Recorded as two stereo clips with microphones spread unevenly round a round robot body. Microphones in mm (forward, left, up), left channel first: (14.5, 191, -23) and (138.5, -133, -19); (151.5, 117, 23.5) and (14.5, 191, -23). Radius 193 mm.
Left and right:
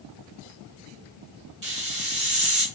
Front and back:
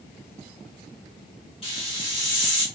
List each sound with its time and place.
1.6 s a hiss: 90° right, 1.1 m